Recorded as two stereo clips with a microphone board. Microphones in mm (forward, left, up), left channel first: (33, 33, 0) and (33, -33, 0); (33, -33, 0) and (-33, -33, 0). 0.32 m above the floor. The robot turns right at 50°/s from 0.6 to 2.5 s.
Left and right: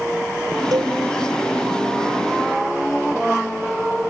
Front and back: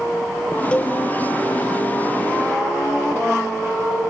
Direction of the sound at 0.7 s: 75° right.